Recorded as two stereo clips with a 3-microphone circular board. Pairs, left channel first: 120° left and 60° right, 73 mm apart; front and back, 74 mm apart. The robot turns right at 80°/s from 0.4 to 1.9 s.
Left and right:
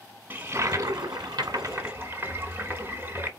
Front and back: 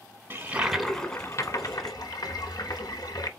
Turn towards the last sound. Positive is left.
turn(degrees=-5)